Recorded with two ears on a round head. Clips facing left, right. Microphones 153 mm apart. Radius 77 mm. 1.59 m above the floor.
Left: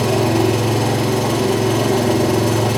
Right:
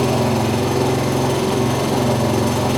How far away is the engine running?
About 7 m.